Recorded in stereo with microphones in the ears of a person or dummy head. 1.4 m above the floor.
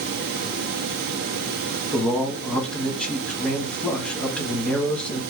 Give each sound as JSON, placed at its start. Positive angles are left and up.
{"t": 1.9, "sound": "a man speaking", "side_deg": 5, "distance_m": 1.1}